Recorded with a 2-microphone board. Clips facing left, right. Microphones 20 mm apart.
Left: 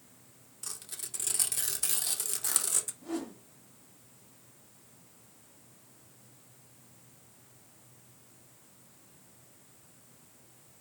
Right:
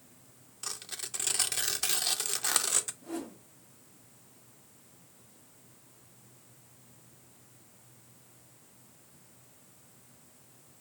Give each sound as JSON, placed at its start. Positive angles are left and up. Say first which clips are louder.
{"t": 0.6, "sound": "tearing paper", "louder": "right 4 dB", "side_deg": -30, "distance_m": 0.5}
{"t": 3.0, "sound": "a whoosh", "louder": "left 2 dB", "side_deg": 35, "distance_m": 1.8}